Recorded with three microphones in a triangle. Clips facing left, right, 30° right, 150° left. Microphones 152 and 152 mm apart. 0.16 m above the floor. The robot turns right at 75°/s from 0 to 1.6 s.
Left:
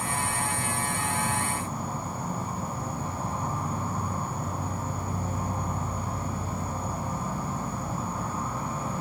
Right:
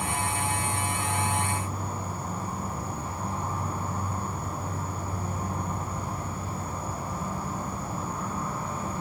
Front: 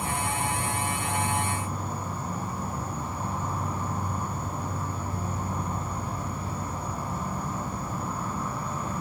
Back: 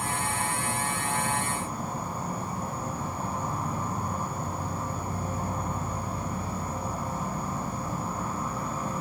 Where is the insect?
10° right, 1.4 m; by 9.0 s 110° left, 1.4 m.